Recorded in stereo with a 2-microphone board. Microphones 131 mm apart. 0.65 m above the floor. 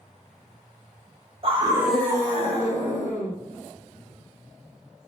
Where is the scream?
45° right (ahead or behind), 1.1 m; by 3.3 s 65° left (ahead or behind), 2.5 m.